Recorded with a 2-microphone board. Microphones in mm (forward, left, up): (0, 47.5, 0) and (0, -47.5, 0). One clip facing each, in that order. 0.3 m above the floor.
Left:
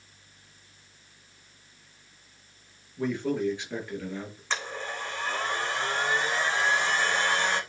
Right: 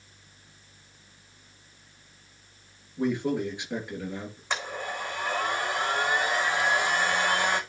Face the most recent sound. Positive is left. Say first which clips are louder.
# right 1 dB
turn(degrees=-15)  # may be behind; listen again after turning